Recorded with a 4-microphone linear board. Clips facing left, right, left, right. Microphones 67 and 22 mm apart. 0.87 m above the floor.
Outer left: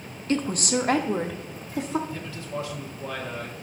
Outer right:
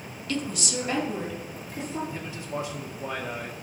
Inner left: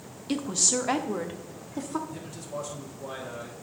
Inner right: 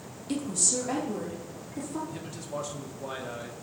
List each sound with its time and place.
0.3 s a woman speaking: 30° left (ahead or behind), 0.6 m; by 2.0 s 75° left (ahead or behind), 1.5 m
2.1 s a man speaking: 20° right (ahead or behind), 1.4 m